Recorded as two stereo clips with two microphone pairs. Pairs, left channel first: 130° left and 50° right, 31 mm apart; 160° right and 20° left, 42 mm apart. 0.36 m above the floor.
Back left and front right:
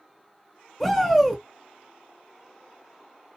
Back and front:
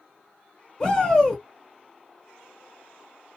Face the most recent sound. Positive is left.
turn(degrees=-170)